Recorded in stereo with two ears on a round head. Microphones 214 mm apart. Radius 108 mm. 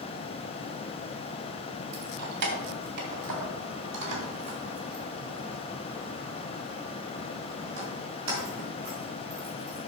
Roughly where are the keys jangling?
Right.